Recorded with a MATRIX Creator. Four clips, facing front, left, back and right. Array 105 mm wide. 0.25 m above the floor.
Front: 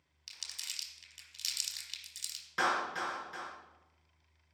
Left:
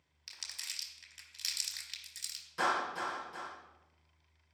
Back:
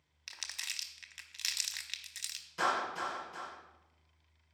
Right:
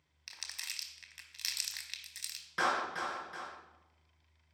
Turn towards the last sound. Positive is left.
turn(degrees=-40)